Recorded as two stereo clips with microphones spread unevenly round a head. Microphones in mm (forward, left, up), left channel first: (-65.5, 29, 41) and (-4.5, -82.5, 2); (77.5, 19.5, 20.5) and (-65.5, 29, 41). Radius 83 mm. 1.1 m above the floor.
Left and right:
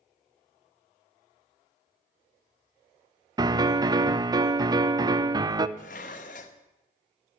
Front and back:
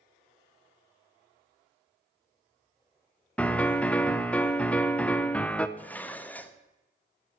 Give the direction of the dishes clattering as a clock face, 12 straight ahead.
9 o'clock.